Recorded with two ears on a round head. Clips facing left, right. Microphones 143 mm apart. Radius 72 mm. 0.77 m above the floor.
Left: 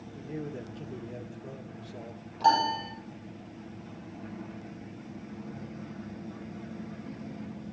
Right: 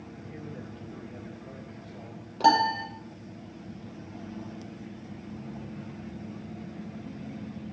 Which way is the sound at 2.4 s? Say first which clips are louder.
Right 2 dB; 65° right (ahead or behind).